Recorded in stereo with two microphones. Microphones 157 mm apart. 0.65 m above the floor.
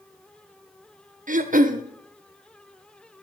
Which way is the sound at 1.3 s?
60° right (ahead or behind).